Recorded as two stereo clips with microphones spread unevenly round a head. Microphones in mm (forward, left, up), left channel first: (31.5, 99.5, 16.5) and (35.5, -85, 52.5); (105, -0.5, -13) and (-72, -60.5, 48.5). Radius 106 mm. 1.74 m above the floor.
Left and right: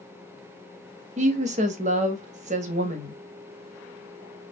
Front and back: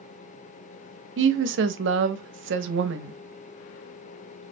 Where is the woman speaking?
145° right, 0.6 m.